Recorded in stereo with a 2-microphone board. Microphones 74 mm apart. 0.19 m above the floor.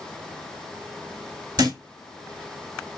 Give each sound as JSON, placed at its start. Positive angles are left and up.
{"t": 1.6, "sound": "a thud", "side_deg": -70, "distance_m": 4.0}